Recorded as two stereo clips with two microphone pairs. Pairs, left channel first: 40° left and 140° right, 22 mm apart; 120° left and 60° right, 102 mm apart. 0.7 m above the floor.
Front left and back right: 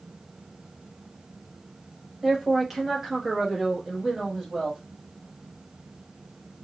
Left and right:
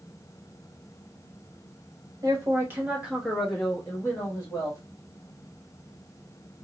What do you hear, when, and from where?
2.2 s a man speaking: 55° right, 1.2 m; by 4.8 s 160° left, 1.4 m